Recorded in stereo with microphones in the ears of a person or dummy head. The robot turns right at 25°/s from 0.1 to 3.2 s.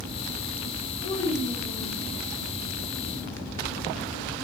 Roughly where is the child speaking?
Left.